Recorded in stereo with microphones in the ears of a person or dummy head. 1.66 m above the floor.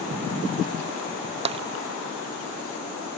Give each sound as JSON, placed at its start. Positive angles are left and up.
{"t": 1.4, "sound": "tapping", "side_deg": -30}